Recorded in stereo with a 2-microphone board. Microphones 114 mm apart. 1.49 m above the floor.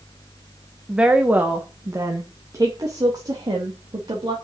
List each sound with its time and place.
0.9 s a woman speaking: 10° right (ahead or behind), 1.2 m; by 4.3 s 45° right (ahead or behind), 3 m